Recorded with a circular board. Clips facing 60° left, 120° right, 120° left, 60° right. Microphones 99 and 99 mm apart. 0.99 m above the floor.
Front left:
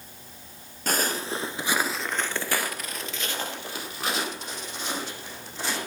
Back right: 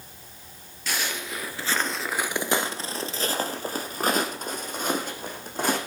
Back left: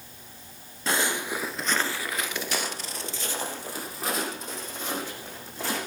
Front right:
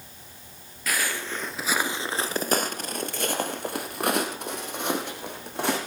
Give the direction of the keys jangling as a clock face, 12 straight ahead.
No keys jangling in this recording.